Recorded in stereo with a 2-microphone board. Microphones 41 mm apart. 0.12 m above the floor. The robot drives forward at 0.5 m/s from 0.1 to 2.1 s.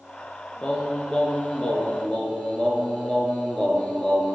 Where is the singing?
25° left (ahead or behind), 0.7 m; by 4.3 s 20° left (ahead or behind), 1.0 m.